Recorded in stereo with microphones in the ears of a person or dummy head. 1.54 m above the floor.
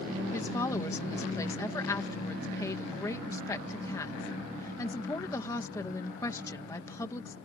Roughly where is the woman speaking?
Centre.